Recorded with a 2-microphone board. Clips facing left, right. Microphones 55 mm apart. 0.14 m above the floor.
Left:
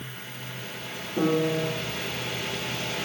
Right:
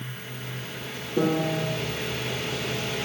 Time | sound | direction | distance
1.2 | a piano | 15° right (ahead or behind) | 1.5 m